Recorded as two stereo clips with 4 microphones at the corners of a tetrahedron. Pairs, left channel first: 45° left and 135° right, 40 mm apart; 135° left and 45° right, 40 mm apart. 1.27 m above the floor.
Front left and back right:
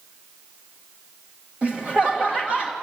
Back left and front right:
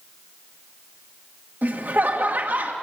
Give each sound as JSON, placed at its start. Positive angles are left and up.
{"t": 1.6, "sound": "laughter", "azimuth_deg": -75, "distance_m": 1.8}